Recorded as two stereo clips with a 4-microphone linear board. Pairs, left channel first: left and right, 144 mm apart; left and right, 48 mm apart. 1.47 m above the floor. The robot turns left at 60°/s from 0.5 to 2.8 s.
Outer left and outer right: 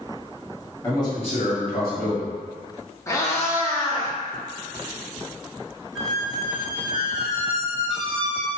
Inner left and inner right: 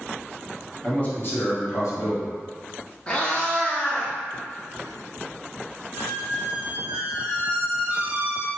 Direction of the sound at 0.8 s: 165° left.